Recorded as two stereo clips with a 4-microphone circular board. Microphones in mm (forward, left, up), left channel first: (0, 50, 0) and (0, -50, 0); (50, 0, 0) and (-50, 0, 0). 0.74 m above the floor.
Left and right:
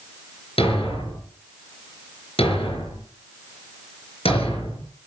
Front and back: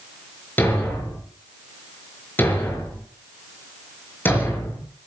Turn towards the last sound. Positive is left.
turn(degrees=70)